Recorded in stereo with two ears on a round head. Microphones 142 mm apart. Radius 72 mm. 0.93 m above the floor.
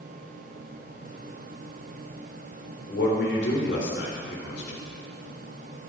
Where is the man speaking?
80° left, 3.5 m.